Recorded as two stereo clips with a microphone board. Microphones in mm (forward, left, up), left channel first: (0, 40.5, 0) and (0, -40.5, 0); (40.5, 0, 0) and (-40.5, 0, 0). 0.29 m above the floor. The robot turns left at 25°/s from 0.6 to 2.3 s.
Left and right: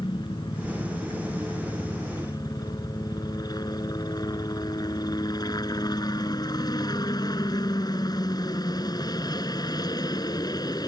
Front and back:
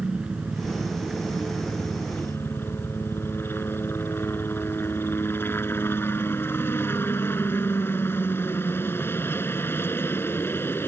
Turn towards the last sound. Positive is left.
turn(degrees=60)